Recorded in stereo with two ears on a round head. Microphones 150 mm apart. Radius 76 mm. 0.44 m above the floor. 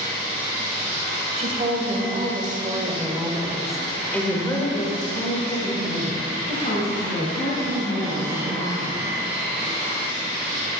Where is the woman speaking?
45° right (ahead or behind), 2.5 m; by 9.2 s 65° left (ahead or behind), 4.5 m.